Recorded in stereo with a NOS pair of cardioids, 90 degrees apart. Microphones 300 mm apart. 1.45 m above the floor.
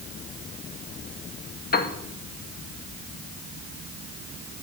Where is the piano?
30° left, 1.2 m.